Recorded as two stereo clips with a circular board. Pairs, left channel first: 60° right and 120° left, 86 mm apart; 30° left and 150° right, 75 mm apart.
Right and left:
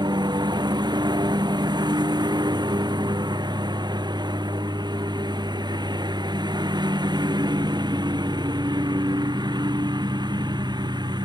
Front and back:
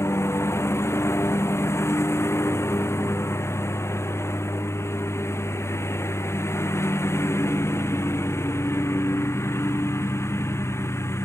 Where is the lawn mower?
85° left.